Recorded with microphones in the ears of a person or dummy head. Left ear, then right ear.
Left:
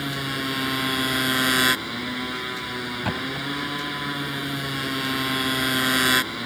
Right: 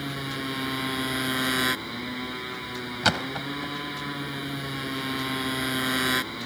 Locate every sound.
0.0 s a motorcycle: 10° left (ahead or behind)
3.0 s a thud: 60° right (ahead or behind)